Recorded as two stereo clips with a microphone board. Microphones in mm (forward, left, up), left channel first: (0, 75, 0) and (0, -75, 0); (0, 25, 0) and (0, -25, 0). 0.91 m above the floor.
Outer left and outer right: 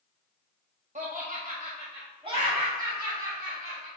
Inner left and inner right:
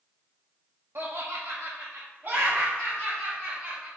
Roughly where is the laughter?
Right.